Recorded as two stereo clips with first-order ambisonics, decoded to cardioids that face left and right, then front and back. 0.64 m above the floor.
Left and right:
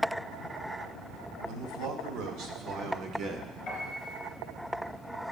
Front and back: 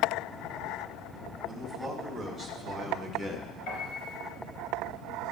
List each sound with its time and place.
1.4 s a man speaking: 85° right, 1.5 m; by 3.6 s 45° right, 0.8 m
3.7 s a piano: 30° left, 3.5 m